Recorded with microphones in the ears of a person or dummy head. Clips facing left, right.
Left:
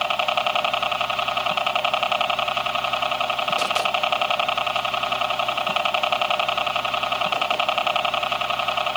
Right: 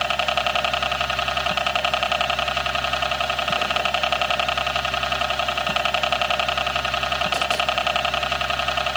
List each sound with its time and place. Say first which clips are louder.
0.0 s a helicopter: even; 20° right (ahead or behind)